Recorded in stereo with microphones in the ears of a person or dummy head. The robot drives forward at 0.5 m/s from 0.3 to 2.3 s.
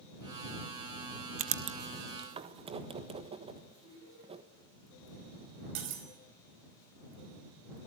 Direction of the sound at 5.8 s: 75° right (ahead or behind).